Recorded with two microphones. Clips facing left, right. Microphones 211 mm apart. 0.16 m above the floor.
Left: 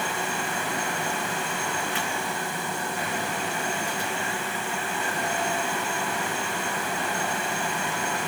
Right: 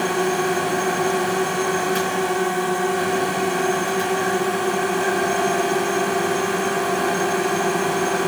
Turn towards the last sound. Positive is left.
turn(degrees=-70)  # may be behind; listen again after turning